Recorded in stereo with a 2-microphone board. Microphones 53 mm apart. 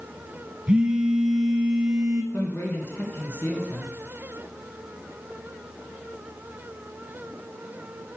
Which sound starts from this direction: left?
A man speaking, at 2.3 s.